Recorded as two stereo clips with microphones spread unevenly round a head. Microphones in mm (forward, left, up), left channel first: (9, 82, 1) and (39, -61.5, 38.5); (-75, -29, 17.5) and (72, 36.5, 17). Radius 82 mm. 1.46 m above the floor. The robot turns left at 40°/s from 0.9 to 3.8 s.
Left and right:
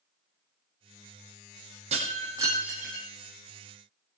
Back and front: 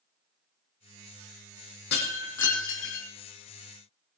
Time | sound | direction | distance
1.9 | breaking glass | 130° right | 6 m